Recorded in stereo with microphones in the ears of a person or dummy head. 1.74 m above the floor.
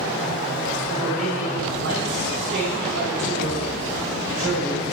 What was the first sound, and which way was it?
A man speaking, 65° right (ahead or behind).